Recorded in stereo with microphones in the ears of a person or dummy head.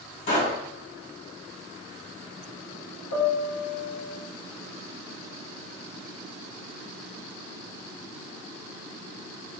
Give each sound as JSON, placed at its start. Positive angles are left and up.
{"t": 0.3, "sound": "a pop", "side_deg": 65, "distance_m": 1.8}
{"t": 3.1, "sound": "a piano", "side_deg": 55, "distance_m": 0.9}